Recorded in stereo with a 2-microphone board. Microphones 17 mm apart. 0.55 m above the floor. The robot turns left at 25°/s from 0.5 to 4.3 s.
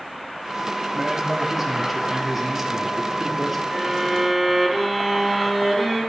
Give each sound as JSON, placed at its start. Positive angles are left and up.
{"t": 0.9, "sound": "a man speaking", "side_deg": -25, "distance_m": 1.3}
{"t": 3.7, "sound": "a violin", "side_deg": -10, "distance_m": 4.5}